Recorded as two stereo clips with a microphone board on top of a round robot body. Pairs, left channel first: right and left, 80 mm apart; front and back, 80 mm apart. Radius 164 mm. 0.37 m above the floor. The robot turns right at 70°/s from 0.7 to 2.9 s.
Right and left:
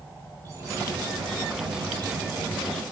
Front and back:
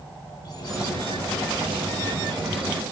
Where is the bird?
35° left, 4 m; by 2.8 s 175° right, 4 m.